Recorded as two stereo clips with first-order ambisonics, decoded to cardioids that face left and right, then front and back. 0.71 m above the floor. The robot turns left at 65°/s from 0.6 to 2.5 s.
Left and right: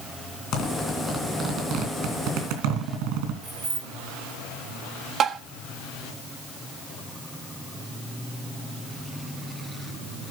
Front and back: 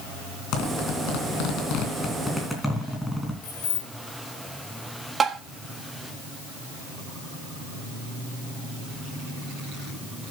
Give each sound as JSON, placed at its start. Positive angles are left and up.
{"t": 0.5, "sound": "a zipper", "azimuth_deg": 35, "distance_m": 3.0}
{"t": 3.4, "sound": "keys jangling", "azimuth_deg": -25, "distance_m": 3.5}
{"t": 5.2, "sound": "tapping", "azimuth_deg": -125, "distance_m": 1.0}